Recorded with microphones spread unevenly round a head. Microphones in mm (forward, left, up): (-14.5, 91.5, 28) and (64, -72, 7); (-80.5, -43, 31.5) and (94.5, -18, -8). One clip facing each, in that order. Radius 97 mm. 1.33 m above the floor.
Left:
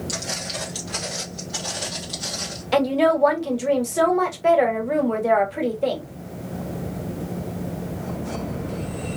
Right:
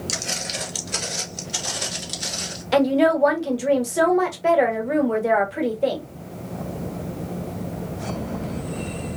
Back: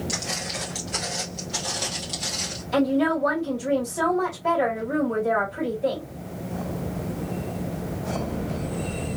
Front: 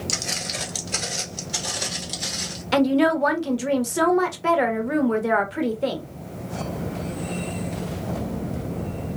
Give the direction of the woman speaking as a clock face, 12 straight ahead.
11 o'clock.